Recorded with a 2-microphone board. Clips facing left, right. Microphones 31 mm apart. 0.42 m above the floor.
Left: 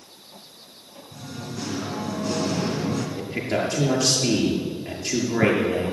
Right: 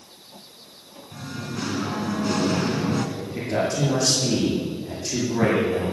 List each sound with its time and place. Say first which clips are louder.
1.1 s singing: right 3 dB; 45° right (ahead or behind), 1.8 m
3.2 s a man speaking: even; 40° left (ahead or behind), 6.5 m